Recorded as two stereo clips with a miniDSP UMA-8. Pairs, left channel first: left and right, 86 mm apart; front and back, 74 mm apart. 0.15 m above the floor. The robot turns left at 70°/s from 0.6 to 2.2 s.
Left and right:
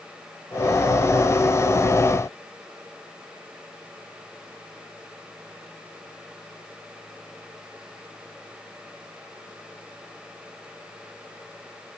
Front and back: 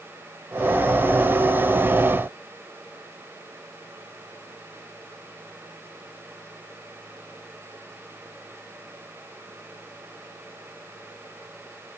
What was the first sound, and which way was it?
Only background noise.